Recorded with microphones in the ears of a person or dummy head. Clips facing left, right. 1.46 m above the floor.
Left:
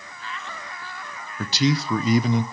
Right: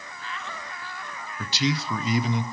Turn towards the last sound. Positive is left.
turn(degrees=40)  # may be behind; listen again after turning